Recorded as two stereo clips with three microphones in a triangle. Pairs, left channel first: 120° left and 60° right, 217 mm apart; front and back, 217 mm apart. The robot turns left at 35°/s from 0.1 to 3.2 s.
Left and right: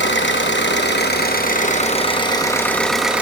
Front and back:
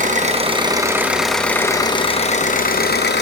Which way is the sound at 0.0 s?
130° left.